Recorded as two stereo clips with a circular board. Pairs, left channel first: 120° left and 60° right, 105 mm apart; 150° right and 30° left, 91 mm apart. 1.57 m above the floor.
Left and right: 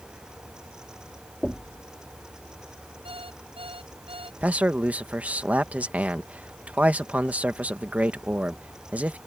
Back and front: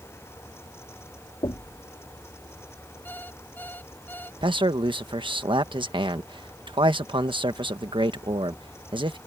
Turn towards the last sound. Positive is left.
turn(degrees=15)